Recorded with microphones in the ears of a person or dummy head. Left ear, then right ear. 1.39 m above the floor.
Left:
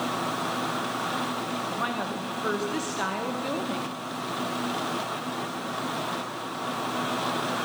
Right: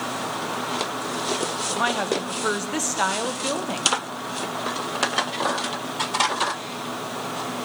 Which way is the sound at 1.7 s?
40° right (ahead or behind).